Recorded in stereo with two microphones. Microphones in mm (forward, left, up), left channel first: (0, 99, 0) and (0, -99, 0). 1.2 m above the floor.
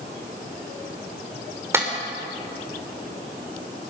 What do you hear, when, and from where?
1.7 s a clap: 15° right (ahead or behind), 4 m